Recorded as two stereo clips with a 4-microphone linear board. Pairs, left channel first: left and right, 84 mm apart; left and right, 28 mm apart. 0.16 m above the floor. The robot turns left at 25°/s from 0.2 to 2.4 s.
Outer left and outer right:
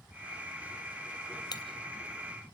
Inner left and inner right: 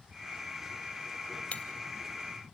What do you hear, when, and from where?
1.5 s breaking glass: 55° left (ahead or behind), 1.3 m